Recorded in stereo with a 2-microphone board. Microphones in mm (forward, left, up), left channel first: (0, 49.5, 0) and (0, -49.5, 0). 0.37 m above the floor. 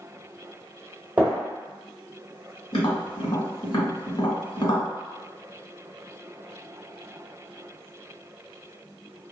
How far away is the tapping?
About 0.9 m.